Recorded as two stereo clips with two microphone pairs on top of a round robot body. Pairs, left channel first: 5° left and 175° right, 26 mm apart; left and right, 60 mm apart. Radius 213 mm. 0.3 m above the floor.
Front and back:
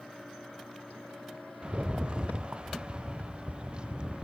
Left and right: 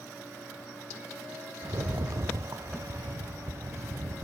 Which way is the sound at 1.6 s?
125° right.